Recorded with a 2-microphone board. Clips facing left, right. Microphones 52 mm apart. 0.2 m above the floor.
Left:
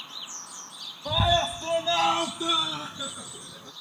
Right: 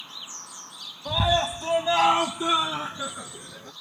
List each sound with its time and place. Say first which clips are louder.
1.1 s a scream: even; 5° left (ahead or behind); by 3.7 s 30° right (ahead or behind)